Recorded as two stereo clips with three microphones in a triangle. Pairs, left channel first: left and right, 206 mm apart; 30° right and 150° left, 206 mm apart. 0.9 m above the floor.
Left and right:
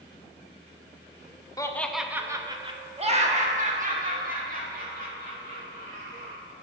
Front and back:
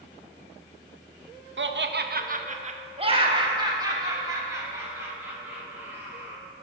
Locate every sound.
1.6 s laughter: 160° left, 0.5 m; by 6.4 s 130° right, 3 m